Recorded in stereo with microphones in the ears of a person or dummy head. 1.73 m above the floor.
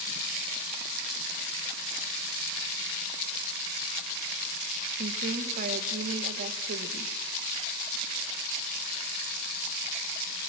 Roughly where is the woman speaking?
Right.